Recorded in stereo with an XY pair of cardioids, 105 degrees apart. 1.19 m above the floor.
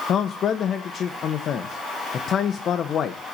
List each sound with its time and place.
0.1 s a man speaking: 55° left, 0.9 m